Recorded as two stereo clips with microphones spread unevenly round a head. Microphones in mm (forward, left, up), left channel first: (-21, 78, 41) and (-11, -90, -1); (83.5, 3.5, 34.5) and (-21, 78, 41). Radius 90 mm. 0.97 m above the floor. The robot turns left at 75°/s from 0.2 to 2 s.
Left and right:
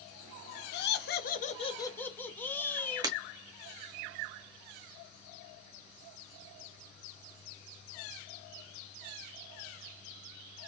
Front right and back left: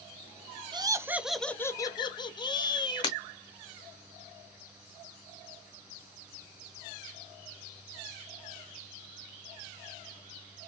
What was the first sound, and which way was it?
Laughter, 100° left.